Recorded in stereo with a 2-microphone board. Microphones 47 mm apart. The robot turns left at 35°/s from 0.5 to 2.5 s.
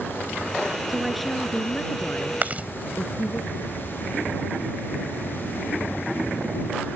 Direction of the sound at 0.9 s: 170° right.